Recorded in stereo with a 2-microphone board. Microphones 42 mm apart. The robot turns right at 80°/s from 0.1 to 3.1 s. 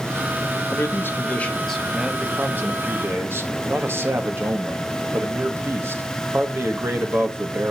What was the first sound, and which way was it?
A man speaking, 90° left.